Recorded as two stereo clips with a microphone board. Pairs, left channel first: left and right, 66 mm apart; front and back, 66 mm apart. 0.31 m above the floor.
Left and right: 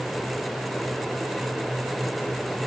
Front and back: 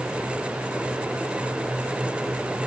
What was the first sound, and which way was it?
Only background noise.